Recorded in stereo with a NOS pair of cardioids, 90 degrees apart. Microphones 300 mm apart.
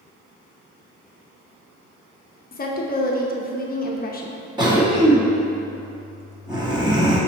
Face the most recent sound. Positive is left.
turn(degrees=-15)